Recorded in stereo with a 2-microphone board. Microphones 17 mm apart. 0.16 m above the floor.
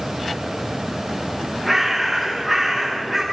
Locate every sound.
1.6 s a bird: 15° right (ahead or behind), 10 m